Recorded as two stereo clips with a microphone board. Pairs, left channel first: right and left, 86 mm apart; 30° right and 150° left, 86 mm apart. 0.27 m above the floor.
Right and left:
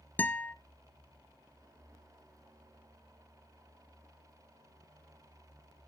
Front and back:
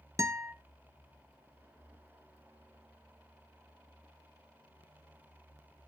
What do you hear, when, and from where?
0.2 s a guitar: 160° right, 0.7 m